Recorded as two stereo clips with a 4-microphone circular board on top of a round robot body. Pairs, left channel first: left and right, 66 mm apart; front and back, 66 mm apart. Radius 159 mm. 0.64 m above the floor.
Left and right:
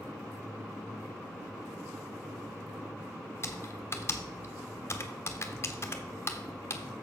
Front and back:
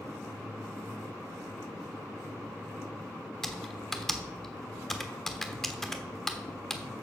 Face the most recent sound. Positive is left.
turn(degrees=80)